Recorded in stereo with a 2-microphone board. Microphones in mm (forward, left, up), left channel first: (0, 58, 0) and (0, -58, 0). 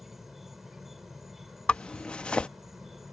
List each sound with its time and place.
0.0 s an insect: centre (ahead or behind)
1.7 s a zipper: 10° left (ahead or behind)